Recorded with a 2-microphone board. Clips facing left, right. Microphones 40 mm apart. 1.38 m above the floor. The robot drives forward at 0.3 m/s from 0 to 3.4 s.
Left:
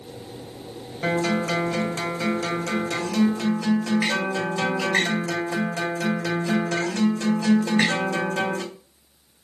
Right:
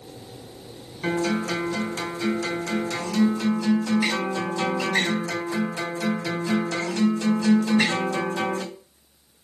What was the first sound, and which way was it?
A guitar, 70° left (ahead or behind).